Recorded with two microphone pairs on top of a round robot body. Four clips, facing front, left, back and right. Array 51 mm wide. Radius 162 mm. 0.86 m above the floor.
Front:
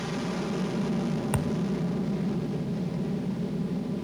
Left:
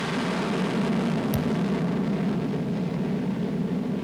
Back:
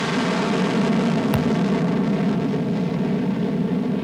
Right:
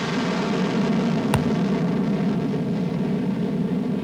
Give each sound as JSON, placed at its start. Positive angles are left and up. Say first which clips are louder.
{"t": 0.0, "sound": "an aircraft", "louder": "right 3 dB, back 10 dB", "azimuth_deg": -170}
{"t": 1.3, "sound": "a thud", "louder": "right 4 dB, back 9 dB", "azimuth_deg": -100}